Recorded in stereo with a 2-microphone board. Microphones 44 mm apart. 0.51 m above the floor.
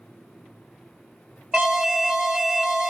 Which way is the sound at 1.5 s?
15° right (ahead or behind).